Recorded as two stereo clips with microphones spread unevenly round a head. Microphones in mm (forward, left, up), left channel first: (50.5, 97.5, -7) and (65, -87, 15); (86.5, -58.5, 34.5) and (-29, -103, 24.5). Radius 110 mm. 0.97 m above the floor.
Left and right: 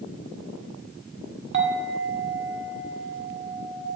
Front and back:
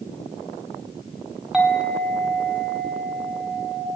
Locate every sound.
1.5 s a clink: 75° right, 1.9 m